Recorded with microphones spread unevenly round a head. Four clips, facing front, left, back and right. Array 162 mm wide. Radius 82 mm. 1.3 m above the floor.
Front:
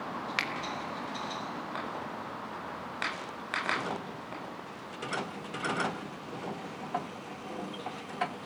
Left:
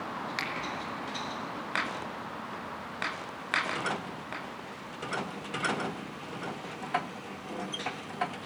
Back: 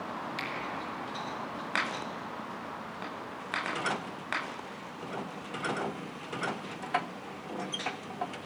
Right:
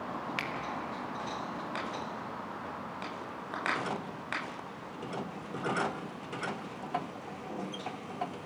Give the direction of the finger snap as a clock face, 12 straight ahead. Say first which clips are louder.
Left 1 dB, front 3 dB; 12 o'clock.